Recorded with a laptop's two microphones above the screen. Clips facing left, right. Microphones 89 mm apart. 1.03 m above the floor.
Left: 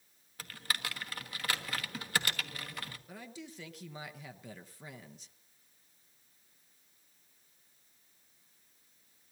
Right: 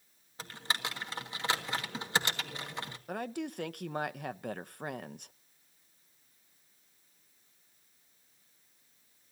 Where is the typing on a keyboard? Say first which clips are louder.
Right 3 dB; 25° right (ahead or behind), 1.4 m.